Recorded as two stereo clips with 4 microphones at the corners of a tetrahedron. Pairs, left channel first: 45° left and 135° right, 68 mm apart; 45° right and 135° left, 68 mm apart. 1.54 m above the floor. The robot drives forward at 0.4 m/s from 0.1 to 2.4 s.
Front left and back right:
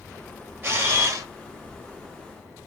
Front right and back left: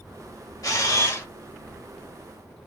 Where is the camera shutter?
80° right, 0.9 m; by 1.3 s 95° right, 0.9 m.